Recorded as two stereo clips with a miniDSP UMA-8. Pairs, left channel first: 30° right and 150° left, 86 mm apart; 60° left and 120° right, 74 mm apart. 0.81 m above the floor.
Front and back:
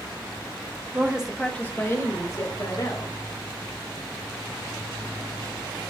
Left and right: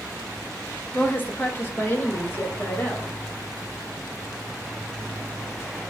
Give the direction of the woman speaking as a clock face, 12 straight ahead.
9 o'clock.